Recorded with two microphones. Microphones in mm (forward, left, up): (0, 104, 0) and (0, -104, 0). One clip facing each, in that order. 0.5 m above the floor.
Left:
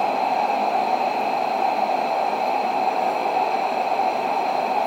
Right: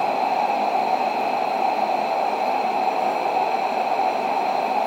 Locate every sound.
Only background noise.